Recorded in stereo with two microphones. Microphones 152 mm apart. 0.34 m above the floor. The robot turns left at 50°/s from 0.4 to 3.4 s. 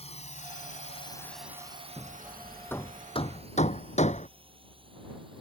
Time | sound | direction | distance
0.0 | a drone | 45° left (ahead or behind) | ?
2.0 | hammering | 25° right (ahead or behind) | ?